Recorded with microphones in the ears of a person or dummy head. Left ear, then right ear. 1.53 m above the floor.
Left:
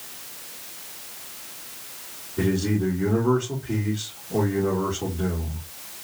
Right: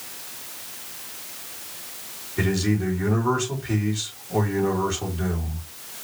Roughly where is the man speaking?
Right.